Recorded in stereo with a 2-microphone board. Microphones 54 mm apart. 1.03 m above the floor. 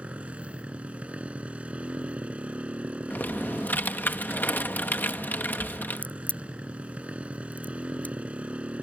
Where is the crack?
25° left (ahead or behind).